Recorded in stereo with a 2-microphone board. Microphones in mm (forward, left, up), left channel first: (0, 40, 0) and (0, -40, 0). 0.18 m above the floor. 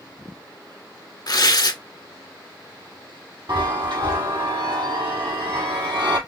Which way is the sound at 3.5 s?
80° right.